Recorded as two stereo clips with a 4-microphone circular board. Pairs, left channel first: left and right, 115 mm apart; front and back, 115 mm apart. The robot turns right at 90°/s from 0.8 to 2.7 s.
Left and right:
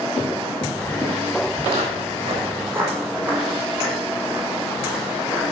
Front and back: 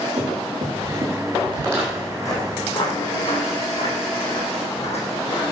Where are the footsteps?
135° right, 5.5 m; by 5.5 s 5° right, 5 m.